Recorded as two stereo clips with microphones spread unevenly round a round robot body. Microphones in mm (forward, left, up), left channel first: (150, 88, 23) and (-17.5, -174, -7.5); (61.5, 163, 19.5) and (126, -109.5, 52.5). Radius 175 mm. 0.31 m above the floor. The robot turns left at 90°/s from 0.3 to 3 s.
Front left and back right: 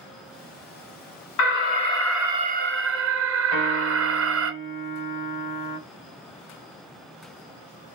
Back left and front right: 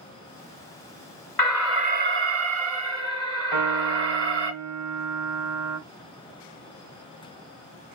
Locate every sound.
1.4 s an alarm: 30° left, 1.3 m; by 4.5 s 115° right, 1.3 m
3.5 s a piano: straight ahead, 2.5 m